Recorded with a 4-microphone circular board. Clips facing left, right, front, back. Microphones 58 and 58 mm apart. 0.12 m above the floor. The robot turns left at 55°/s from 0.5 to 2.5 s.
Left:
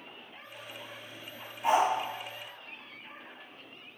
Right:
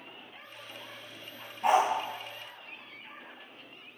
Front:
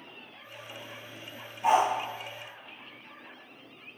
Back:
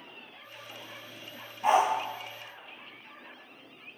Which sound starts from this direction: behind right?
A dog barking, at 1.6 s.